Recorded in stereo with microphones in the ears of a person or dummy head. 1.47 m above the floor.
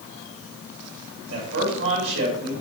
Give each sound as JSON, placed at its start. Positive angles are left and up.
{"t": 1.3, "sound": "a man speaking", "side_deg": -70, "distance_m": 5.0}